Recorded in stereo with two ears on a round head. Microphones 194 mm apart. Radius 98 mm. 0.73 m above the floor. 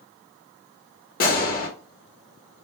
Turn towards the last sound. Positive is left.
turn(degrees=40)  # may be behind; listen again after turning